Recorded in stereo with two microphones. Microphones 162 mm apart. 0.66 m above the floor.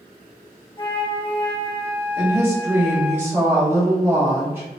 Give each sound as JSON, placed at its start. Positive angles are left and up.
{"t": 0.8, "sound": "a flute", "side_deg": 30, "distance_m": 0.5}
{"t": 2.2, "sound": "a woman speaking", "side_deg": -15, "distance_m": 1.5}